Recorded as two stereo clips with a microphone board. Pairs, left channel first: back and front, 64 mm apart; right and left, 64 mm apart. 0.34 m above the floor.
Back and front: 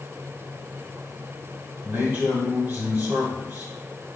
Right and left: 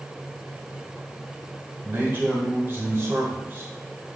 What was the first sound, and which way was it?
A man speaking, 50° left.